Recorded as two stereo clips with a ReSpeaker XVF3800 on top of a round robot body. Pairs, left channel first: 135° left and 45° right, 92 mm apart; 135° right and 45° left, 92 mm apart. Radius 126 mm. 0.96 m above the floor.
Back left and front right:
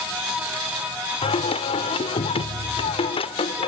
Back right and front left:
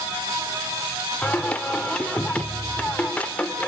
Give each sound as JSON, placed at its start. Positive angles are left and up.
{"t": 1.2, "sound": "singing", "azimuth_deg": 150}